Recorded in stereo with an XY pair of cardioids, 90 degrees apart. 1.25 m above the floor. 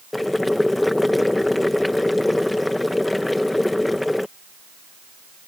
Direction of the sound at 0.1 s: 15° left.